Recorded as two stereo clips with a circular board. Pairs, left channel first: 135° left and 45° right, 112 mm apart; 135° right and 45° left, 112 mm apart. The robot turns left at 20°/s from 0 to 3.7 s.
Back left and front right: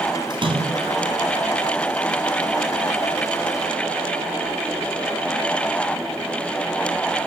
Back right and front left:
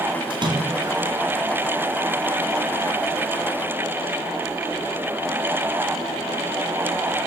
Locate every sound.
0.3 s a splash: straight ahead, 4 m; by 1.0 s 15° right, 4 m